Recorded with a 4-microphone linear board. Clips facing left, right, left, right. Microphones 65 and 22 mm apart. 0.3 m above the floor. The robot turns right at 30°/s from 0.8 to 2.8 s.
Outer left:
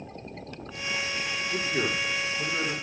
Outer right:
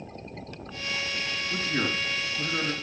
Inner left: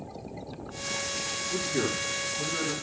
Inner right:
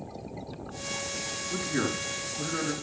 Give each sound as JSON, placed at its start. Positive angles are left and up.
{"t": 1.5, "sound": "a man speaking", "side_deg": -65, "distance_m": 4.5}